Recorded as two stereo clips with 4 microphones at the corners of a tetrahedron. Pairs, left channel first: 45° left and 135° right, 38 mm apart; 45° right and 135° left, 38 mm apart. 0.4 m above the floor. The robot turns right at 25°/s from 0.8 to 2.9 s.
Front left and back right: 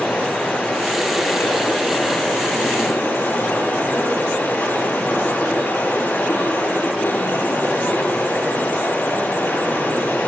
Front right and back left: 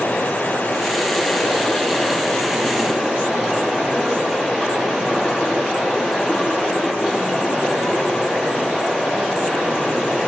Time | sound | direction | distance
0.0 | running water | 5° left | 7 m